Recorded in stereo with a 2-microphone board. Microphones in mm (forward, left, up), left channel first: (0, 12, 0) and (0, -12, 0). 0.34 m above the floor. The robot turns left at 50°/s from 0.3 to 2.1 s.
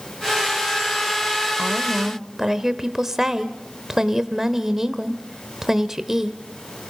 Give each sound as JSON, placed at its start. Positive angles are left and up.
{"t": 1.6, "sound": "a woman speaking", "side_deg": -10, "distance_m": 1.0}